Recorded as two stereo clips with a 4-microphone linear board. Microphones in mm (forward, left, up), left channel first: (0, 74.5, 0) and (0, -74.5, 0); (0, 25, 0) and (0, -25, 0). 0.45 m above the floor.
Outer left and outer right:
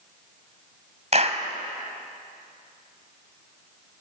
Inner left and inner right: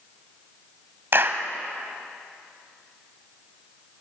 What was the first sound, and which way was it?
A clap, 50° right (ahead or behind).